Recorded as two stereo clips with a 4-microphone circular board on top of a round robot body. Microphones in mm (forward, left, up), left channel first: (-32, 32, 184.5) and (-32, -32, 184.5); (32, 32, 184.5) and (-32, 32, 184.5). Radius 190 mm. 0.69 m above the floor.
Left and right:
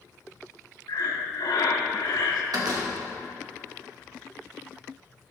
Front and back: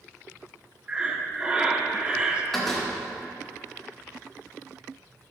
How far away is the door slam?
About 2 m.